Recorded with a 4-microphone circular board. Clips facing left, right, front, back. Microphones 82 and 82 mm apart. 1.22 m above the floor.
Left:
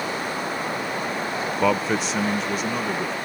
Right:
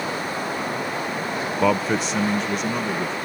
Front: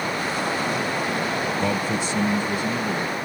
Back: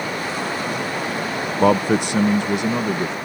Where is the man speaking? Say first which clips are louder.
Right 1 dB, back 7 dB; straight behind; by 3.1 s 175° left.